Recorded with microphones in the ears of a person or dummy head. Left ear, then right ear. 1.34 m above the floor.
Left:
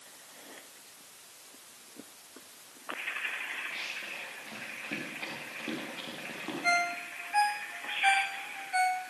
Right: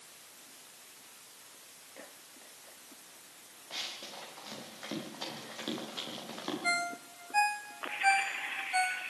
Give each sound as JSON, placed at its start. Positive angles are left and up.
{"t": 3.7, "sound": "running footsteps", "side_deg": -80, "distance_m": 9.0}
{"t": 6.6, "sound": "a ringtone", "side_deg": 5, "distance_m": 1.1}